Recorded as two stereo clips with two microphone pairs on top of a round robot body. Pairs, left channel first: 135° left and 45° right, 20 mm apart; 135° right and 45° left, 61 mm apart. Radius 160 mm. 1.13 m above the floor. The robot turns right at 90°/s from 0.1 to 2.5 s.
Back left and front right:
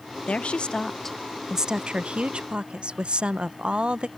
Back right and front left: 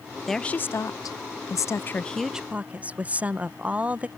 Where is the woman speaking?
135° left; by 4.1 s 20° right.